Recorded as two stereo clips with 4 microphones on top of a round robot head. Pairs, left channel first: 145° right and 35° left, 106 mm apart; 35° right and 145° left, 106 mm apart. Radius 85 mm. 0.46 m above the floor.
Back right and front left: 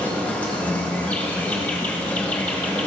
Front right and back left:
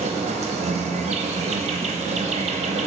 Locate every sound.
0.0 s an insect: 140° left, 1.3 m